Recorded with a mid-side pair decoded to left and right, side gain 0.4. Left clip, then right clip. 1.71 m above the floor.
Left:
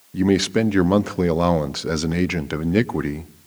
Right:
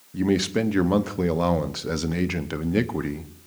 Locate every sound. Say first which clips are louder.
0.1 s a man speaking: left 4 dB; 35° left, 0.9 m